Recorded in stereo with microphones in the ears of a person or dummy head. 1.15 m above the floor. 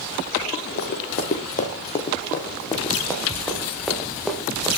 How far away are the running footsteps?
About 3 m.